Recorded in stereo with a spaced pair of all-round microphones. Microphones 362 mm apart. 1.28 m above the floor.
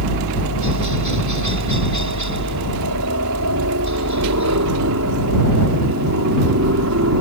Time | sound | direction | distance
0.0 | a helicopter | 55° right (ahead or behind) | ?